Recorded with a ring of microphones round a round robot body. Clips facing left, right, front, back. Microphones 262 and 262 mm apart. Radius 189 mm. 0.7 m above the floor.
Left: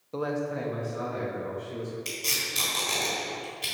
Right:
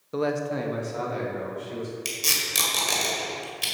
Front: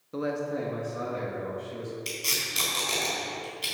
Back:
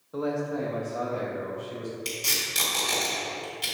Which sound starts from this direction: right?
Tape being pulled, at 2.0 s.